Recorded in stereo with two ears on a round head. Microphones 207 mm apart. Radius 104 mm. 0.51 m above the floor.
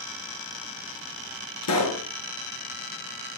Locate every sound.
1.6 s a pop: 75° left (ahead or behind), 3.5 m